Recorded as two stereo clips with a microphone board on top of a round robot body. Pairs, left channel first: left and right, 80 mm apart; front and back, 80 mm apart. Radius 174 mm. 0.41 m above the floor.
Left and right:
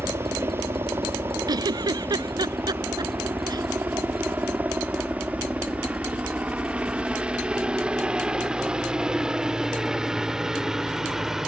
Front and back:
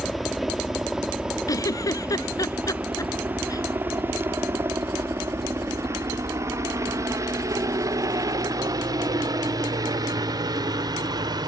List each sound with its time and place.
0.0 s a helicopter: 90° right; by 11.5 s 175° right
1.5 s a giggle: 50° right